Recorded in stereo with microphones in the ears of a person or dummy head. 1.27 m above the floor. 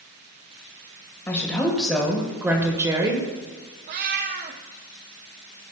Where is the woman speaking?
15° left (ahead or behind), 1.8 m; by 3.3 s 25° right (ahead or behind), 1.6 m.